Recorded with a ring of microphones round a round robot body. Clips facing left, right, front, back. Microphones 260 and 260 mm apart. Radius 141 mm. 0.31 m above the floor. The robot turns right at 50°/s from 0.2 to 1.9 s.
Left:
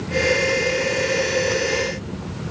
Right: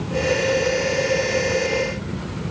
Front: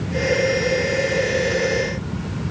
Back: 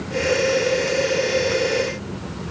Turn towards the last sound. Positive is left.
No sound to turn to.